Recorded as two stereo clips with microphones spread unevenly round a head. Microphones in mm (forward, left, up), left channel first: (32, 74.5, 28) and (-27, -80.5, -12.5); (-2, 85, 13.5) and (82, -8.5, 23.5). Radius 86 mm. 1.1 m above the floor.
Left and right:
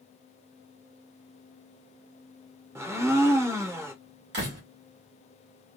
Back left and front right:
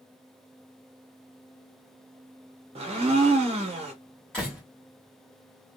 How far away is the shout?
No shout in this recording.